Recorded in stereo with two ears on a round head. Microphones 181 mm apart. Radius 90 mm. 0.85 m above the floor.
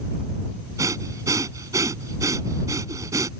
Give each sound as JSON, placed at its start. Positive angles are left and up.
{"t": 0.8, "sound": "breathing", "side_deg": -15}